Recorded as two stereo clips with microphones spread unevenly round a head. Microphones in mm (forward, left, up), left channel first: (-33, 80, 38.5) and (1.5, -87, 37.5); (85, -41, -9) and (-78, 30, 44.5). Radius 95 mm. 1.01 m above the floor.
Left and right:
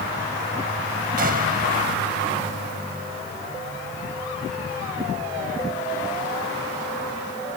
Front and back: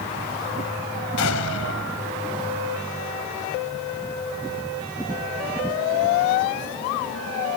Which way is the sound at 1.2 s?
35° right.